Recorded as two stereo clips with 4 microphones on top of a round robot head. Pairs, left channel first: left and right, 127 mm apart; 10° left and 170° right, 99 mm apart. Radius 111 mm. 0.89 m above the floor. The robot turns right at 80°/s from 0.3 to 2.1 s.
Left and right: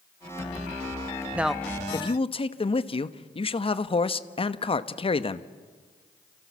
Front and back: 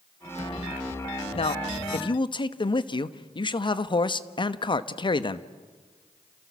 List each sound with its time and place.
1.3 s a man speaking: 15° right, 1.1 m; by 5.5 s 45° left, 1.1 m